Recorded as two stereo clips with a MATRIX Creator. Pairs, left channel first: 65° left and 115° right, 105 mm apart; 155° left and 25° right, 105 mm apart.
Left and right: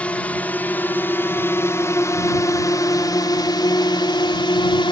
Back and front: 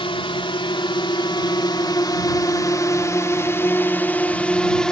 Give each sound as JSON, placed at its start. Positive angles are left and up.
{"t": 0.0, "sound": "a drone", "azimuth_deg": 145}